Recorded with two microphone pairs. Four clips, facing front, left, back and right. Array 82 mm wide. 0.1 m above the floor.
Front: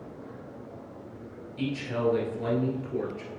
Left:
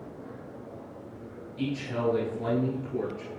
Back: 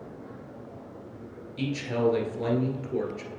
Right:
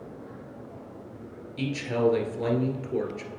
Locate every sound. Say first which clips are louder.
1.6 s a man speaking: right 4 dB, back 2 dB; 110° right, 1.8 m